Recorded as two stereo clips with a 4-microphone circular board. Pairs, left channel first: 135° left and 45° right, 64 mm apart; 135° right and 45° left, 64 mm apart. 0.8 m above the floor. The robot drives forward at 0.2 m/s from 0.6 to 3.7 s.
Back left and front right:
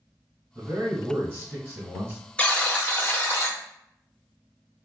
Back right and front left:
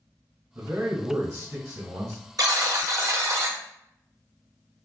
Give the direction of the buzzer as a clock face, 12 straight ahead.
10 o'clock.